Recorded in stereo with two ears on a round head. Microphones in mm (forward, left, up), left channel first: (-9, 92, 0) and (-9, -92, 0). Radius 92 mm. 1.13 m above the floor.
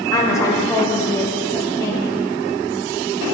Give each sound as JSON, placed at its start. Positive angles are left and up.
{"t": 0.1, "sound": "a woman speaking", "side_deg": 15, "distance_m": 1.0}